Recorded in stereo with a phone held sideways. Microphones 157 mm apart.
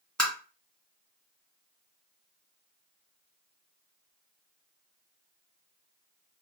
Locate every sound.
0.2 s tapping: 5° left (ahead or behind), 1.8 m